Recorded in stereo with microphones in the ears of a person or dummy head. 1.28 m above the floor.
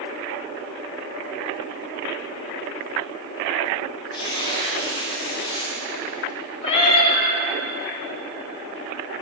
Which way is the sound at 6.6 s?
30° left (ahead or behind).